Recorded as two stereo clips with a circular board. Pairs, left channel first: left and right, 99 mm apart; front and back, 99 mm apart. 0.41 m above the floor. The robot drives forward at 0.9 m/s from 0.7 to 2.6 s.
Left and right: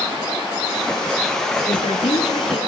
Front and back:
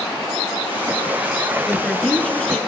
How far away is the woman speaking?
About 4 m.